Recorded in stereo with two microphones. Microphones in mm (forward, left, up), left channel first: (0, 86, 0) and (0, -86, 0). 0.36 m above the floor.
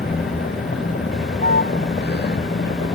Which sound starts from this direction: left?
A vehicle, at 0.0 s.